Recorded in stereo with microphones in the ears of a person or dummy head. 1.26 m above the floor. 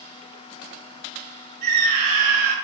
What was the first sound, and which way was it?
A scream, 45° right (ahead or behind).